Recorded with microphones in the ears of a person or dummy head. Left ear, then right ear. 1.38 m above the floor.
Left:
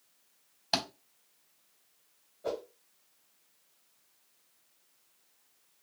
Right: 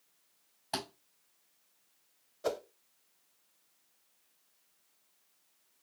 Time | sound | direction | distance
0.7 | a thud | 30° left (ahead or behind) | 3 m
2.4 | a whoosh | 75° right (ahead or behind) | 0.5 m